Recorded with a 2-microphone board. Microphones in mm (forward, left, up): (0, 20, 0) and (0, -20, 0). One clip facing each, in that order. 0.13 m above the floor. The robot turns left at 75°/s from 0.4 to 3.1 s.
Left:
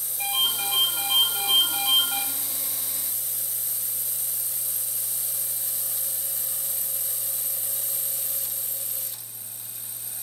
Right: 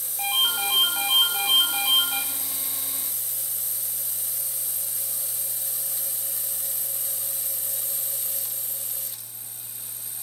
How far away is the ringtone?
About 6.5 m.